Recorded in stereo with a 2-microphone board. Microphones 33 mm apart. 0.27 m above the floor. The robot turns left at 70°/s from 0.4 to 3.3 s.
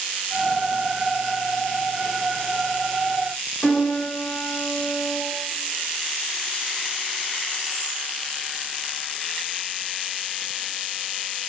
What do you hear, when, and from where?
3.6 s a piano: 45° left (ahead or behind), 1.4 m